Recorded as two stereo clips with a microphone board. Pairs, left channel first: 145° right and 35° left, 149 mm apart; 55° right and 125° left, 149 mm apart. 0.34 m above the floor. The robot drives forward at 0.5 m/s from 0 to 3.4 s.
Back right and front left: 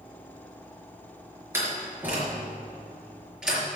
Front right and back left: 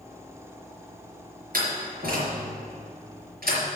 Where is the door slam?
110° left, 4.5 m; by 3.6 s 120° left, 5 m.